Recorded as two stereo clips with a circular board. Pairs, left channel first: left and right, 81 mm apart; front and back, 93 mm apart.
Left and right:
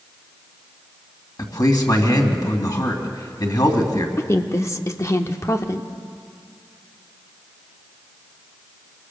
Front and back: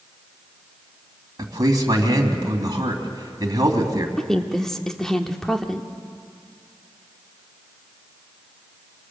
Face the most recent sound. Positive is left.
turn(degrees=80)